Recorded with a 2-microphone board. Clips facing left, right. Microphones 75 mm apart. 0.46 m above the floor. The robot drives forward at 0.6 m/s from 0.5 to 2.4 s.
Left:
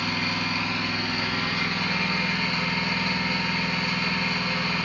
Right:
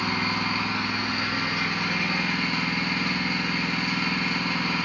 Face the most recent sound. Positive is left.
turn(degrees=-15)  # may be behind; listen again after turning